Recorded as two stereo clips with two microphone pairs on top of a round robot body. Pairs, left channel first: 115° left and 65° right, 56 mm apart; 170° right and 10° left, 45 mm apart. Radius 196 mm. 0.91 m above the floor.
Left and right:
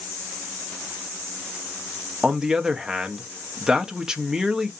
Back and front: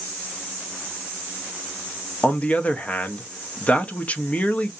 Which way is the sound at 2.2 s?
150° right.